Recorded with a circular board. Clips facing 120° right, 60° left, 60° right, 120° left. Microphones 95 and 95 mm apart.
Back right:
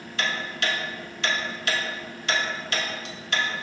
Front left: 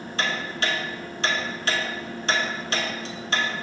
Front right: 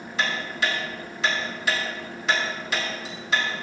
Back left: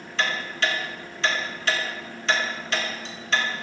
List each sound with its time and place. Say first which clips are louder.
0.2 s ticking: front left 1 dB, even; 20° left, 0.8 m